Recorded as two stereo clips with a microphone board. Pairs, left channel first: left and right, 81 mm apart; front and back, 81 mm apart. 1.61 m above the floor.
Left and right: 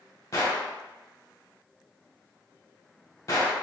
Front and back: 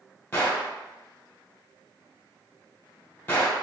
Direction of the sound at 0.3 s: 55° left.